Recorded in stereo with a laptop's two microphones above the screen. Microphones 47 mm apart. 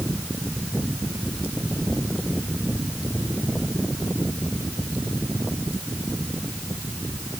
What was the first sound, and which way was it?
Only background noise.